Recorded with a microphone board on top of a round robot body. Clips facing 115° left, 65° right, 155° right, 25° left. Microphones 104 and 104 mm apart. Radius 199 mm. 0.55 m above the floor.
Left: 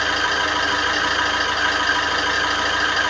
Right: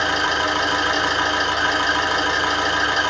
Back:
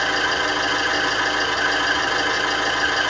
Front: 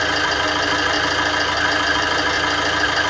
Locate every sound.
0.0 s an engine running: 5° right, 1.1 m